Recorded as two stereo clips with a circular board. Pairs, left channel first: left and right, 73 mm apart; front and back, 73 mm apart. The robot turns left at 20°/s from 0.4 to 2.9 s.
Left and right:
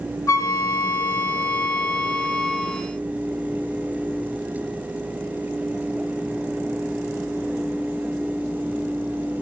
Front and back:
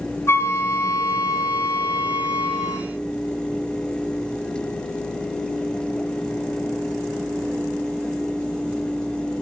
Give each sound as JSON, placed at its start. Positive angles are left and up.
{"t": 0.3, "sound": "a flute", "azimuth_deg": 55, "distance_m": 1.6}